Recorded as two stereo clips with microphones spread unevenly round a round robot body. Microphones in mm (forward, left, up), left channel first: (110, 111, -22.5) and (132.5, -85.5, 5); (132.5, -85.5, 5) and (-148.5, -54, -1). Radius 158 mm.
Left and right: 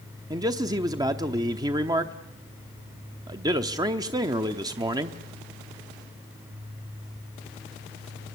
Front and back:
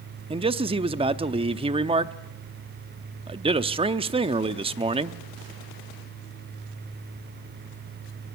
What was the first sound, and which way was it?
A man speaking, 150° right.